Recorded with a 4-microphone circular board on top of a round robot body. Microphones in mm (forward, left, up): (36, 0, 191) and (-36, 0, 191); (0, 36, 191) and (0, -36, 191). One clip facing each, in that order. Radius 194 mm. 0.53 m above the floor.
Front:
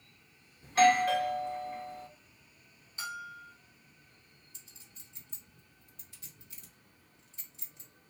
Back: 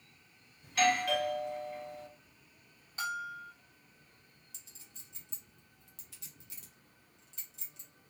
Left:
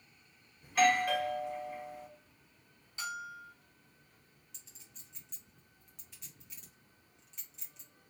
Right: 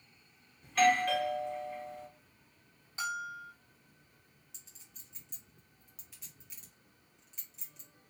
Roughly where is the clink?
Behind.